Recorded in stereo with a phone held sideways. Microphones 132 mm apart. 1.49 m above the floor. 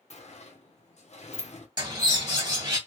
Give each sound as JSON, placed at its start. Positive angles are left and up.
{"t": 0.1, "sound": "a sliding door", "side_deg": 60, "distance_m": 0.7}
{"t": 1.8, "sound": "a bird", "side_deg": -30, "distance_m": 1.5}